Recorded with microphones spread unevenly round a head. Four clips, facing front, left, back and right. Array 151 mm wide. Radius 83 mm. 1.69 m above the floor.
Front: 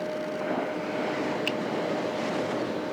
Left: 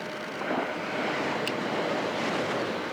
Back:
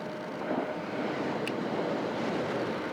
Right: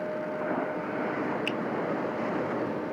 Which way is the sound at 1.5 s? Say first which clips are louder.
Even, front 3 dB; 5° left.